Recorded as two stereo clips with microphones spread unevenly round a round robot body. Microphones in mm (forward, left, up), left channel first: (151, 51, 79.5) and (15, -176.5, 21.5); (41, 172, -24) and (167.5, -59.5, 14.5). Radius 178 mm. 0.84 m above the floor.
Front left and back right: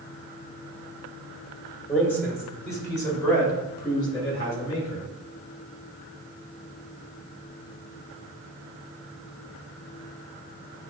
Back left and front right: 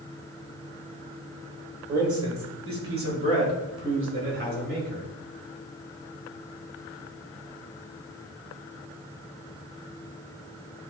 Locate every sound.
1.9 s a man speaking: 30° right, 3.5 m; by 5.1 s 15° right, 5 m